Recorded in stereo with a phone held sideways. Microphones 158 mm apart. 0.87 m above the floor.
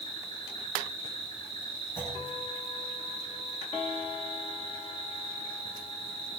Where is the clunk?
15° left (ahead or behind), 9 m.